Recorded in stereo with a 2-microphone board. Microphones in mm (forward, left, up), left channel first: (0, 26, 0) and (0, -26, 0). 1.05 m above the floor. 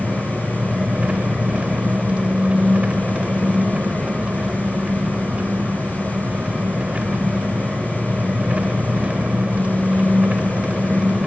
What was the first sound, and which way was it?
An engine running, 25° right (ahead or behind).